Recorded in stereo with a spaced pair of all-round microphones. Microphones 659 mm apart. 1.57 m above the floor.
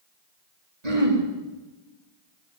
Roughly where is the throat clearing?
Right.